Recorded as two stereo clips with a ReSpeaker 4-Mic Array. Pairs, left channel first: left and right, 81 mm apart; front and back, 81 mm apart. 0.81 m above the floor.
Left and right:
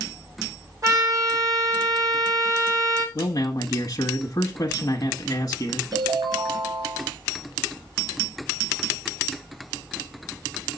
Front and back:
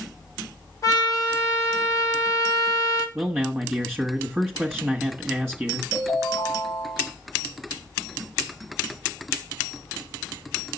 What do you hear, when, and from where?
0.8 s a trumpet: 45° right, 3.5 m
3.1 s a man speaking: 100° left, 1.3 m
5.9 s a ringtone: 110° right, 4.5 m